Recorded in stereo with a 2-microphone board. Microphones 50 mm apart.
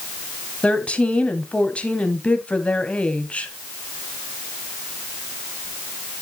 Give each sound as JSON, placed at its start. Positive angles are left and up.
{"t": 0.6, "sound": "a woman speaking", "side_deg": 25, "distance_m": 1.3}